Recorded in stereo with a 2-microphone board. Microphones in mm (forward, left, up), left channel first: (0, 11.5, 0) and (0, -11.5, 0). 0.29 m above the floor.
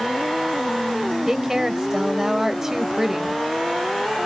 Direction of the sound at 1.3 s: 25° right (ahead or behind).